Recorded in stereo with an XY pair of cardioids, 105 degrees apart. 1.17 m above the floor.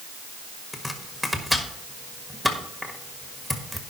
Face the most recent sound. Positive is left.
turn(degrees=0)